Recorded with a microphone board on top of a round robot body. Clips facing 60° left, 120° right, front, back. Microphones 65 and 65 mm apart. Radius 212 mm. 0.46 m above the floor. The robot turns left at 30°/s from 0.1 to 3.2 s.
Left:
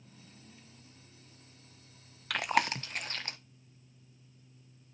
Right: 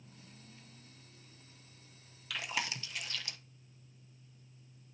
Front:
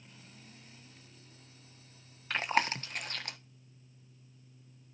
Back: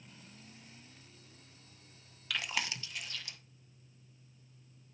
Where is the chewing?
50° left, 1.1 m; by 3.4 s 20° left, 1.1 m.